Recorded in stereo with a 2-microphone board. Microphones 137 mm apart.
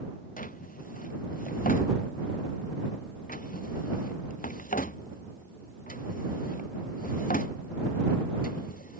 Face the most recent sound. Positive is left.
turn(degrees=70)  # may be behind; listen again after turning